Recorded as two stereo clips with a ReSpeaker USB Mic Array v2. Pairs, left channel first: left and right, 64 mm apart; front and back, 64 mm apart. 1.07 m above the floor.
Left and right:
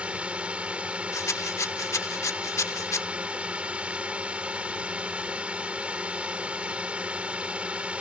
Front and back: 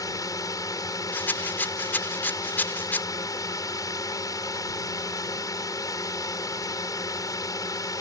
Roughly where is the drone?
Ahead.